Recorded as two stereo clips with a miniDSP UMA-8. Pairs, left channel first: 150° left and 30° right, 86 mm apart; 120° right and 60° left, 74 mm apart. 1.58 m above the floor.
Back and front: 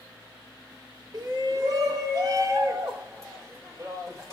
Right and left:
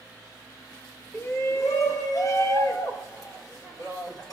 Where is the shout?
65° right, 2 m; by 4.3 s 85° right, 6 m.